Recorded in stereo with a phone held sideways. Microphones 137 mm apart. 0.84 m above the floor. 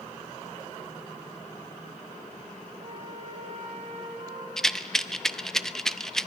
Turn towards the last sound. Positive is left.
turn(degrees=5)  # may be behind; listen again after turning